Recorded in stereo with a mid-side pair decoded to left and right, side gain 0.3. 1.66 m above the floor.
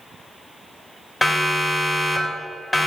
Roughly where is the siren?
Ahead left.